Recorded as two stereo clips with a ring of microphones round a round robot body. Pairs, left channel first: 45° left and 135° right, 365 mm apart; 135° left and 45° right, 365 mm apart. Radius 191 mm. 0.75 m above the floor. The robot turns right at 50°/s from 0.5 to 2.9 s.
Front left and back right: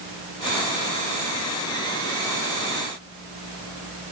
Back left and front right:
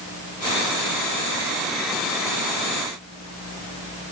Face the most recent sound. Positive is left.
No sound to turn to.